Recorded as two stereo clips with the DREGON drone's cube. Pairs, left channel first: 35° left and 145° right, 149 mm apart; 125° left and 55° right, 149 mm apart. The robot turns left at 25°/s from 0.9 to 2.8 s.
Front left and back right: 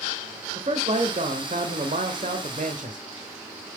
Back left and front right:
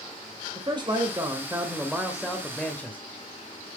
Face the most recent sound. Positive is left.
turn(degrees=-155)